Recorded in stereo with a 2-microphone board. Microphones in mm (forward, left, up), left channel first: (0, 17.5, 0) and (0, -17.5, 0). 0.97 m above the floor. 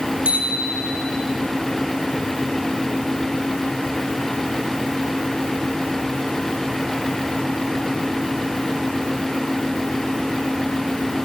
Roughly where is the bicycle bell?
Right.